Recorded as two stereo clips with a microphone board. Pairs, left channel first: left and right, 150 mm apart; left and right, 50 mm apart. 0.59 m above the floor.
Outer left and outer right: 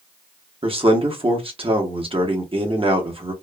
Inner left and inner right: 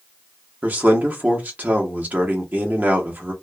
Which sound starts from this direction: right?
A man speaking, at 0.6 s.